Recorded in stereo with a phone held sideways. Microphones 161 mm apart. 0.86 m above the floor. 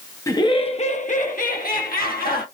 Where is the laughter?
20° left (ahead or behind), 0.6 m; by 2.5 s 70° left (ahead or behind), 1.6 m.